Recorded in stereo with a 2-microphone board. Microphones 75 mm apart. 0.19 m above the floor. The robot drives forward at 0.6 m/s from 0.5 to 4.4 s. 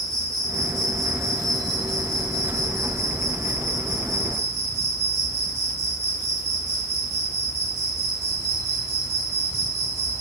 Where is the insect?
10° left (ahead or behind), 2 m; by 10.2 s 5° left (ahead or behind), 4 m.